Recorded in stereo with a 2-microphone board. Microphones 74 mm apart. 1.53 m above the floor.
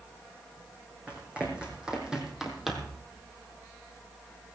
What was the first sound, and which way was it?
Running footsteps, 20° right (ahead or behind).